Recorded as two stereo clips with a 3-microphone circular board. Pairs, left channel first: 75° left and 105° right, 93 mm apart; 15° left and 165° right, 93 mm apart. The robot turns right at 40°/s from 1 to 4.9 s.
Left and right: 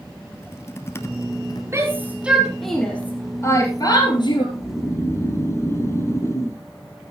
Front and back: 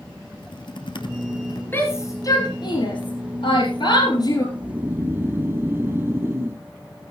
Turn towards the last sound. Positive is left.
turn(degrees=130)